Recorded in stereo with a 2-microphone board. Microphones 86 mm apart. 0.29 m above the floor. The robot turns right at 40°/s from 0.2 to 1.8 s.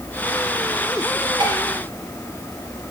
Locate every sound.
1.4 s dishes clattering: 65° right (ahead or behind), 4.5 m; by 1.6 s 60° right (ahead or behind), 4.5 m